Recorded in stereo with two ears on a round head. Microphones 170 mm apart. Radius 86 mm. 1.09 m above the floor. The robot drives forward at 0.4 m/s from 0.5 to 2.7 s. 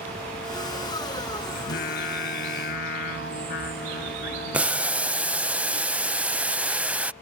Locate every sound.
1.6 s singing: 55° left (ahead or behind); by 5.5 s 60° left (ahead or behind)
4.5 s boiling: 5° right (ahead or behind)